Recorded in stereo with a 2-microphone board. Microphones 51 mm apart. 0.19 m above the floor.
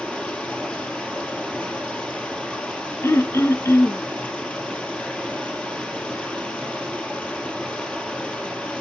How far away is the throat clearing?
About 0.9 m.